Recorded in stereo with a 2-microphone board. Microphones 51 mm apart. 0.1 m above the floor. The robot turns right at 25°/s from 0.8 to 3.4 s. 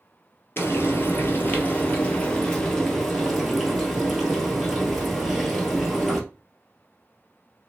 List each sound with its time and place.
0.6 s frying: 120° left, 1.5 m; by 6.2 s 175° right, 1.5 m